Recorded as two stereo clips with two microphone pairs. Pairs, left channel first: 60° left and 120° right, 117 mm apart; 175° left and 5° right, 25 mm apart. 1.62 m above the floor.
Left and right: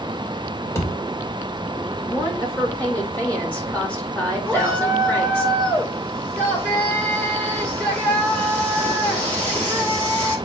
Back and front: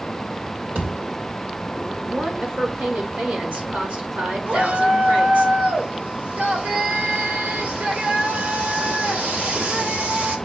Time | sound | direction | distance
0.8 | a thud | 5° right | 2.5 m
2.1 | a woman speaking | 15° right | 4 m
4.5 | a shout | 15° right | 5 m